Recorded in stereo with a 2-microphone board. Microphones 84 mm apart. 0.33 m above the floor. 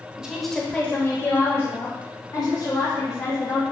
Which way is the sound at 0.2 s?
10° right (ahead or behind).